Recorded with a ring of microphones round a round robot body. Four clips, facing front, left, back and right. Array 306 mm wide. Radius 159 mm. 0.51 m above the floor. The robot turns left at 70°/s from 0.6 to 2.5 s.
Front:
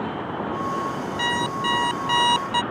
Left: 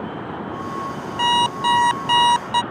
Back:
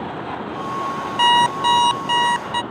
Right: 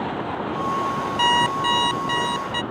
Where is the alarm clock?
175° right; by 2.6 s 90° left.